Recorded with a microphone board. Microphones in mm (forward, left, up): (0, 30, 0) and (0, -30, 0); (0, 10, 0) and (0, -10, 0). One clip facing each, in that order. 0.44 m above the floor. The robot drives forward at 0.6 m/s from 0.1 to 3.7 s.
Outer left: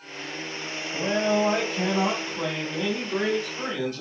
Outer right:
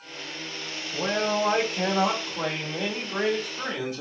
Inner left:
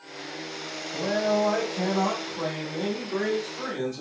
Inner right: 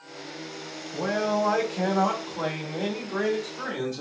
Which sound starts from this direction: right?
A man speaking, at 0.9 s.